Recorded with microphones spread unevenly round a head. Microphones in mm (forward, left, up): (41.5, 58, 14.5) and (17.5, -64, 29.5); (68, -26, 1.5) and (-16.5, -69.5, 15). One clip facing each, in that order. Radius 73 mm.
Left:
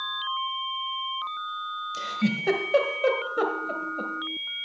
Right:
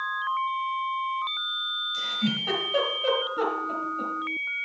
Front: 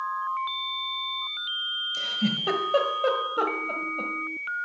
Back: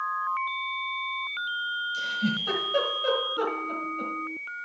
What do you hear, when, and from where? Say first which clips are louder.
1.9 s a giggle: left 2 dB, front 2 dB; 70° left, 1.4 m